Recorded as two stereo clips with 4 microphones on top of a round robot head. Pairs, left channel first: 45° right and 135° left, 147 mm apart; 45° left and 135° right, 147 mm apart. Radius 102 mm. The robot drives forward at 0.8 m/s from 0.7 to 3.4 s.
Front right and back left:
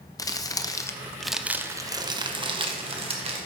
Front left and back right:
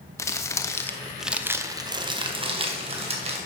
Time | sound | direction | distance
0.2 | crumpling | 5° right | 0.9 m